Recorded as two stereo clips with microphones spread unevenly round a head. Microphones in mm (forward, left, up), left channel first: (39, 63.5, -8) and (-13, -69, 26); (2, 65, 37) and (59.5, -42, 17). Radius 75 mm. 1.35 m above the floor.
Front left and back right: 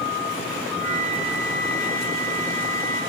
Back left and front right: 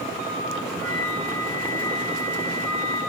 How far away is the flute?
About 3 m.